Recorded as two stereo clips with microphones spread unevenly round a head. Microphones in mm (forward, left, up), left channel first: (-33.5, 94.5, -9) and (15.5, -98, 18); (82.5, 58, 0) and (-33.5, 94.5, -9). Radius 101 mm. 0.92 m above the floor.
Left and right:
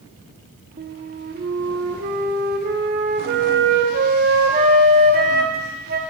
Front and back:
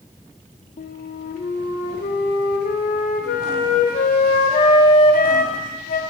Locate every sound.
0.8 s a flute: 30° right, 0.8 m